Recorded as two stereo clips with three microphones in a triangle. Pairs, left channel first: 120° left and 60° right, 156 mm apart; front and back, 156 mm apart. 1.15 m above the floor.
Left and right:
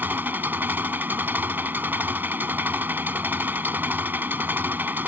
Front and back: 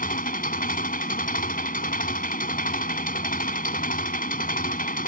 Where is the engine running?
20° left.